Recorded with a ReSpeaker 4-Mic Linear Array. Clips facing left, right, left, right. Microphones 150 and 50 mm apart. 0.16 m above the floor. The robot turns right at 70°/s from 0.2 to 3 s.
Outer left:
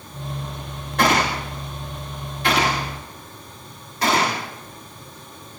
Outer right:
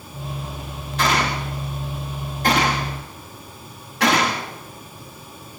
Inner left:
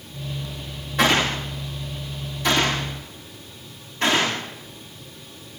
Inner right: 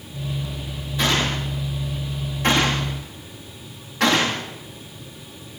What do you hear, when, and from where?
1.0 s a gunshot: 60° left (ahead or behind), 9.5 m; by 4.4 s 80° right, 9.5 m